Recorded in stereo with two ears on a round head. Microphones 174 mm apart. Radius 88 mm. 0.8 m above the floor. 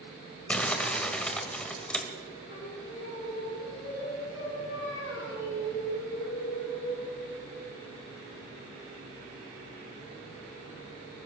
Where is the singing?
60° left (ahead or behind), 5.5 m.